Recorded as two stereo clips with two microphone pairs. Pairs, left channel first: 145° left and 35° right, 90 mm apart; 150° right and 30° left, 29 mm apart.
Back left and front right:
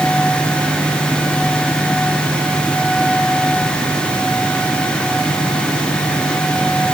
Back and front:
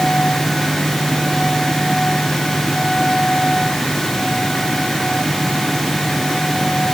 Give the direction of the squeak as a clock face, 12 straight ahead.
No squeak in this recording.